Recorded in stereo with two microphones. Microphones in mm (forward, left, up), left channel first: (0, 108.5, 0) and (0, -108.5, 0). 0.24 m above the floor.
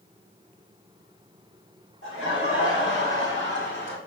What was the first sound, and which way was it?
Laughter, 65° left (ahead or behind).